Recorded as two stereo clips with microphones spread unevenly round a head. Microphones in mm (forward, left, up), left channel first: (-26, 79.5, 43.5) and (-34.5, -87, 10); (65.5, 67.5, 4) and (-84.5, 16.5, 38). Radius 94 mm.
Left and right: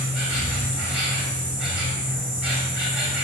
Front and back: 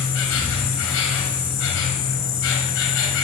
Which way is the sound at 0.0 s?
5° right.